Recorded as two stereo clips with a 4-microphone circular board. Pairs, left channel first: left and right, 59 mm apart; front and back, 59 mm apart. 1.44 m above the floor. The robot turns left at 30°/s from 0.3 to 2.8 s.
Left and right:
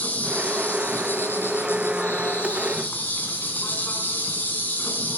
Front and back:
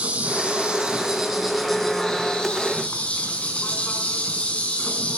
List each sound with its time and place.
0.0 s an insect: 130° left, 1.7 m; by 5.2 s 55° left, 1.7 m